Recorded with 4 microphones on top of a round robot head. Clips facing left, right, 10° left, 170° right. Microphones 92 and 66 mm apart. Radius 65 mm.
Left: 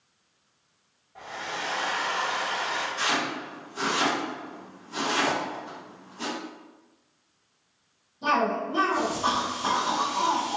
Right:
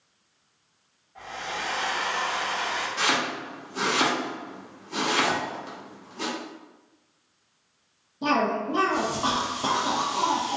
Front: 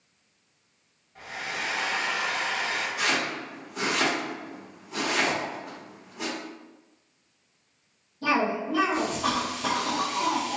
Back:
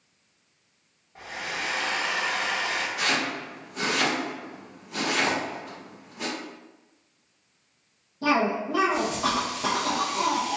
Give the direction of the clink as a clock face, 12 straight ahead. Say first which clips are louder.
Even, back 2 dB; 7 o'clock.